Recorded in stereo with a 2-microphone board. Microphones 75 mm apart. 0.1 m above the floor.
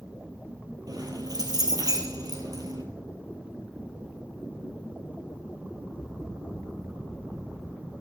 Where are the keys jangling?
60° right (ahead or behind), 1.6 m.